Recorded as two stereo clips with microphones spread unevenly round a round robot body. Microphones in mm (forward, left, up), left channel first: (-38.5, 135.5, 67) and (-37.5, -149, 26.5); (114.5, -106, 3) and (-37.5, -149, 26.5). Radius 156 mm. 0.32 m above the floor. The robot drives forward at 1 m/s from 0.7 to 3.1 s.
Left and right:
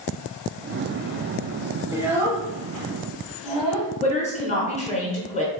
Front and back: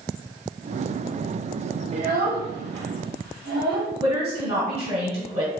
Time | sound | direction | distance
1.9 | a child speaking | 145° right | 0.5 m
4.0 | a woman speaking | 155° left | 1.0 m